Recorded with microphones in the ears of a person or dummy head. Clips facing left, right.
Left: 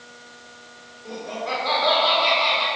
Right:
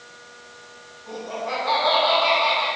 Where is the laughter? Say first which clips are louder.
Even; 65° left (ahead or behind), 3.5 m.